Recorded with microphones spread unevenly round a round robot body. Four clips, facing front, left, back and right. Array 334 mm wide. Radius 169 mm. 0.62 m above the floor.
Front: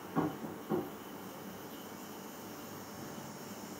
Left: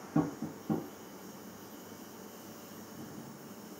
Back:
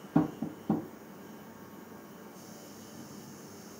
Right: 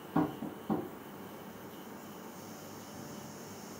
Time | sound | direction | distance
0.1 | tapping | 165° left | 1.5 m